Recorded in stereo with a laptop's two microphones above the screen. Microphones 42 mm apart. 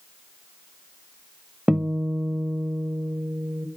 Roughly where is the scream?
I don't hear a scream.